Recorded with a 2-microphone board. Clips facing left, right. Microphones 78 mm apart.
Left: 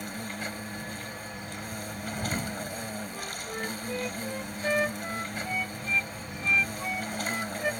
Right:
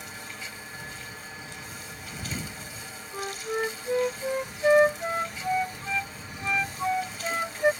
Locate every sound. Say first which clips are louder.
0.0 s an insect: left 4 dB; 50° left (ahead or behind)
3.1 s a flute: right 6 dB; 40° right (ahead or behind)